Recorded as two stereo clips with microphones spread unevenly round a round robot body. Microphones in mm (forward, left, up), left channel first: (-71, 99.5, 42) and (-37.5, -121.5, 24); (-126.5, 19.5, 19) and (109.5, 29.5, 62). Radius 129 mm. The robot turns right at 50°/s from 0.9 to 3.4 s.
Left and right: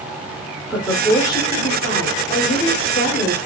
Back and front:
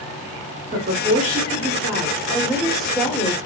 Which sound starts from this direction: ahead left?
A woman speaking, at 0.7 s.